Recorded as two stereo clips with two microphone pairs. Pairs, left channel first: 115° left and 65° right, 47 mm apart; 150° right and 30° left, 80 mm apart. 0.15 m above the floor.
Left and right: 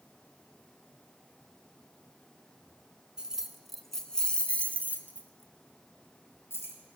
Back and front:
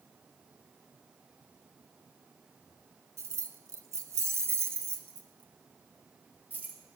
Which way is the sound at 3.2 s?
Straight ahead.